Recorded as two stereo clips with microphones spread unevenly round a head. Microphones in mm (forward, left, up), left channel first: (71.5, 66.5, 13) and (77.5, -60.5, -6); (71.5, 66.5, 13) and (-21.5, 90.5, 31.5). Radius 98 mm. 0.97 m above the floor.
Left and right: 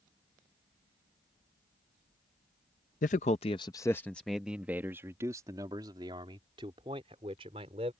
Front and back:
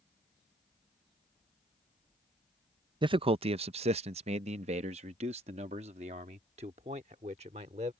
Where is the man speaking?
125° left; by 7.9 s 150° right.